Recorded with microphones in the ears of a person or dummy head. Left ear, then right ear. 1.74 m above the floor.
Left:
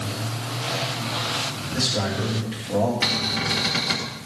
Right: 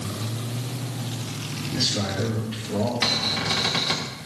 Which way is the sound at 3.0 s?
10° right (ahead or behind).